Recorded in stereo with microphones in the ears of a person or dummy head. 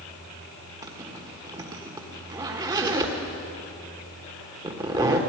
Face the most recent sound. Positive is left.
turn(degrees=-15)  # may be behind; listen again after turning